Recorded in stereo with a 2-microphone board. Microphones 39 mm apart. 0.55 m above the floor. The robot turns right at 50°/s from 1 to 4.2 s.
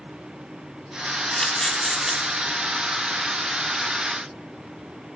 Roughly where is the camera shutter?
Centre.